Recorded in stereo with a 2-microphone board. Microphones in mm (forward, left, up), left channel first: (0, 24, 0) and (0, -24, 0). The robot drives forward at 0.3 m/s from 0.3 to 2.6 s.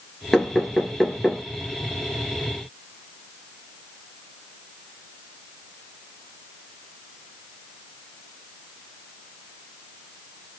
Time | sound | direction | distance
0.3 | knocking | 10° left (ahead or behind) | 2.5 m